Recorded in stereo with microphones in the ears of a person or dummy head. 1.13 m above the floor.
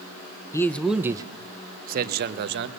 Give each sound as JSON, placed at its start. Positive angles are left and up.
{"t": 0.5, "sound": "a man speaking", "side_deg": 20, "distance_m": 0.6}